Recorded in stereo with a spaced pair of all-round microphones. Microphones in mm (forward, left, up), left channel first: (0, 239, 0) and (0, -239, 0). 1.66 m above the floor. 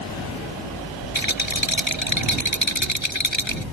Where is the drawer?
I don't hear a drawer.